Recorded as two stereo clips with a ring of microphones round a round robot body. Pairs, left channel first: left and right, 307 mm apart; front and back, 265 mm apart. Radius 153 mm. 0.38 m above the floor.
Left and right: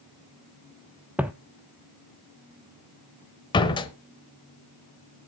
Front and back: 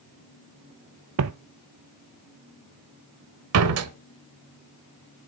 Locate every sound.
1.2 s footsteps: 175° right, 0.5 m
3.5 s a door slam: 165° left, 1.0 m